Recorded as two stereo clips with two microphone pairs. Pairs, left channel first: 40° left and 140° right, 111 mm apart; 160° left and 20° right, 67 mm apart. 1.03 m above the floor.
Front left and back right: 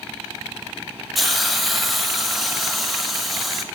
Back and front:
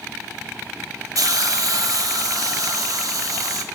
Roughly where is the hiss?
Ahead right.